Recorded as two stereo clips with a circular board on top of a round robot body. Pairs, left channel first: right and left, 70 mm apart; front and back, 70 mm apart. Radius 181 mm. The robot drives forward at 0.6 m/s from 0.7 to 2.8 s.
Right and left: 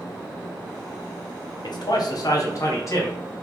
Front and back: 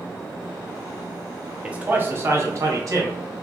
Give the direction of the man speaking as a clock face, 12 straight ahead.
3 o'clock.